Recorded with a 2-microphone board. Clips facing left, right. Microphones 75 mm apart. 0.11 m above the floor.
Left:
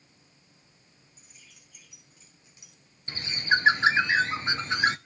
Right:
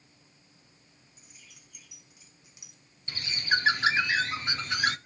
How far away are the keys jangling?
About 6.5 m.